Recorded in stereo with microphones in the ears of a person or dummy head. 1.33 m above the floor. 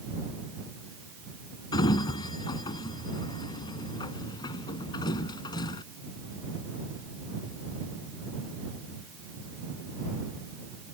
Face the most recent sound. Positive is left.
turn(degrees=20)  # may be behind; listen again after turning